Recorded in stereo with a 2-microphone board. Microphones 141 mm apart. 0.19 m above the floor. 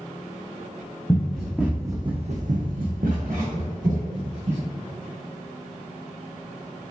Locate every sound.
1.1 s running footsteps: 10° left (ahead or behind), 1.3 m; by 4.7 s 60° right (ahead or behind), 2.5 m